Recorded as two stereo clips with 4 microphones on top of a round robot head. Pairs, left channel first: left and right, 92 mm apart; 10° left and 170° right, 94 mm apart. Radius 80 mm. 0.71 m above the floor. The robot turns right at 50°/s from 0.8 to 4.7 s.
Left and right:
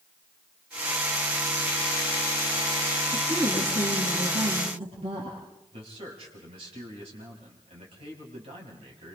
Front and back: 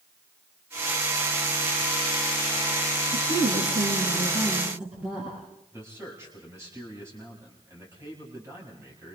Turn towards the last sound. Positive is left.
turn(degrees=-105)